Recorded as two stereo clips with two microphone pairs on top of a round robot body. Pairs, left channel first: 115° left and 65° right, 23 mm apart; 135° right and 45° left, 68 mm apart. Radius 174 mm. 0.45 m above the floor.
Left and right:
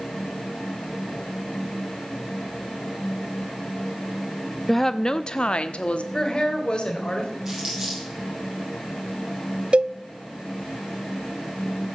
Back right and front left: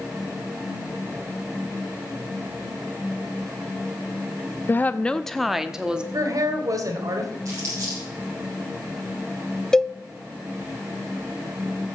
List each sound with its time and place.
4.7 s a woman speaking: 175° right, 0.8 m; by 6.0 s 110° left, 1.3 m
6.1 s a woman speaking: 65° left, 2.5 m
7.5 s crumpling: 5° left, 8.5 m
9.7 s a cowbell: 45° right, 0.6 m